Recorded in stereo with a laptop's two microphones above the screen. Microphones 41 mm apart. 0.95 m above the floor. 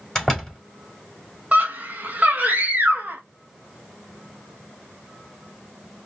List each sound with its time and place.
0.1 s a door slam: 10° left (ahead or behind), 4 m
1.5 s a scream: 35° right (ahead or behind), 0.8 m